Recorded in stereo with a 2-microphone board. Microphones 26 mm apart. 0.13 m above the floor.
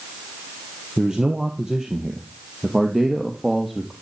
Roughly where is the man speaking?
Right.